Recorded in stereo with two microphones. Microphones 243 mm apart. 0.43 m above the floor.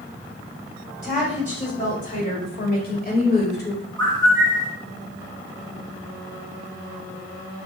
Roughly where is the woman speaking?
Left.